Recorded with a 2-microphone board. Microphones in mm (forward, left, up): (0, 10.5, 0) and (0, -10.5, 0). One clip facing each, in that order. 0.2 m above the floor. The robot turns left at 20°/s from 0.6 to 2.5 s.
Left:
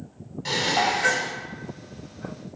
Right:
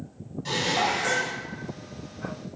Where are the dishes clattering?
30° left (ahead or behind), 0.8 m; by 1.4 s 35° left (ahead or behind), 0.8 m.